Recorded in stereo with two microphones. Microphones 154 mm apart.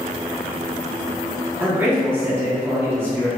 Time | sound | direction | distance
1.6 | a man speaking | 15° right (ahead or behind) | 0.9 m